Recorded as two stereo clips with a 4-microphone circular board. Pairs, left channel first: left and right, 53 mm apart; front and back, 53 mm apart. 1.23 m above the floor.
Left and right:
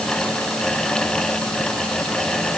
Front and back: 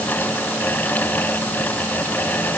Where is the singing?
I don't hear singing.